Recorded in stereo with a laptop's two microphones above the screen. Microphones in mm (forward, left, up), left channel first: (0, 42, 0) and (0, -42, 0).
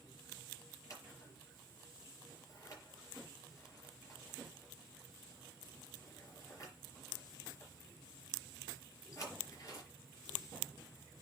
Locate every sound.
0.9 s scissors: 40° left (ahead or behind), 6 m